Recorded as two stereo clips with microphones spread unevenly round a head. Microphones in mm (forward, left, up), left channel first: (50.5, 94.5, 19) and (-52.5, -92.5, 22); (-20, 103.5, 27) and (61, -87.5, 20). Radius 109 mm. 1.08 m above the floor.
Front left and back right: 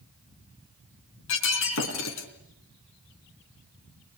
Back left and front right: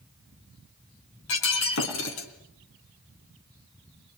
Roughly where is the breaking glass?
Left.